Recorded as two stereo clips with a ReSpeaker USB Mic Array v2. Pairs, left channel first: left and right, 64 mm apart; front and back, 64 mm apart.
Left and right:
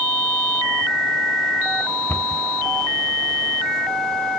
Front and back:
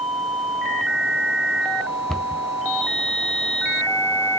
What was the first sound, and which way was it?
A cupboard door, 75° left.